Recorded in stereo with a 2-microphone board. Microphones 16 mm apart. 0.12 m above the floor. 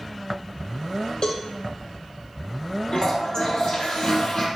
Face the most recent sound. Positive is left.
turn(degrees=70)  # may be behind; listen again after turning